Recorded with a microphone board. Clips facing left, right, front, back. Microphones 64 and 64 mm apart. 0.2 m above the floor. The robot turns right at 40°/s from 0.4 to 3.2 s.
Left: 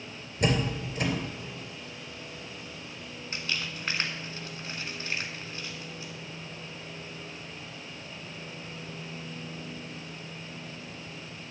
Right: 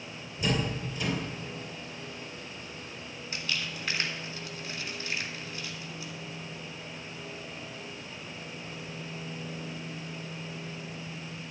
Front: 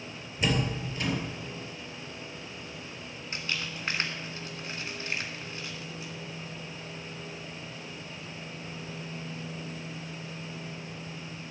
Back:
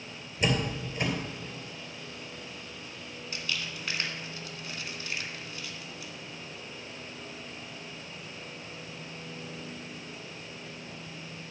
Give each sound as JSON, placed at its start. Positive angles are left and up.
{"t": 0.4, "sound": "a door slam", "azimuth_deg": 90, "distance_m": 3.0}
{"t": 3.3, "sound": "crumpling", "azimuth_deg": 45, "distance_m": 2.0}